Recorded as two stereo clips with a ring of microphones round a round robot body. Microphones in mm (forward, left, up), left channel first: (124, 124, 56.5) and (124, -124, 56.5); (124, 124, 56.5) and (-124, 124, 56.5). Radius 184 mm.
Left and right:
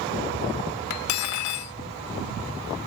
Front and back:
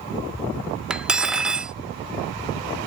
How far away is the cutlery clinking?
About 0.5 m.